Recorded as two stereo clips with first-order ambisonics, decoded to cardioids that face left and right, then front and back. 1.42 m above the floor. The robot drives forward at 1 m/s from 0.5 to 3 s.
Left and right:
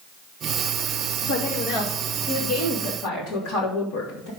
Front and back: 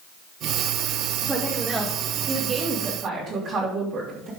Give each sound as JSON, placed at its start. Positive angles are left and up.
{"t": 1.2, "sound": "a woman speaking", "azimuth_deg": 90, "distance_m": 2.5}